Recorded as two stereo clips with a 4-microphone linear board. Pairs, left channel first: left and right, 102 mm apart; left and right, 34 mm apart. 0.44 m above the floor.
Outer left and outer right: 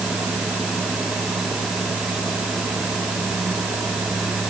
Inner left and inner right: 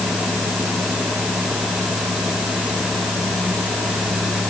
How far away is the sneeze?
I don't hear a sneeze.